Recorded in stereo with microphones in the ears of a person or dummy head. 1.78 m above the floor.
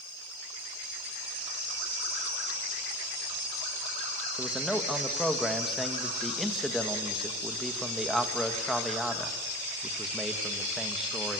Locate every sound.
4.4 s a man speaking: centre (ahead or behind), 1.8 m